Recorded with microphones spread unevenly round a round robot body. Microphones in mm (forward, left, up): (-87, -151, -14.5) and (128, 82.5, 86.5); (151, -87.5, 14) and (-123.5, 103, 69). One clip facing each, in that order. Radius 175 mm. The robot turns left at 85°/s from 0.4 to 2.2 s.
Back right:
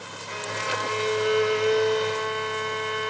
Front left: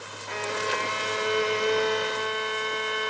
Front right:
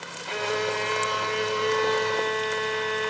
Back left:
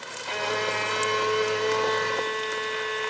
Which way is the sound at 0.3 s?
145° left.